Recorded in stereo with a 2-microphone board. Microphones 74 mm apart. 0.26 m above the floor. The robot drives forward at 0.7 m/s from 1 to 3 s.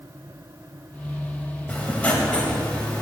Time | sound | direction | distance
1.7 | writing | 20° left (ahead or behind) | 0.8 m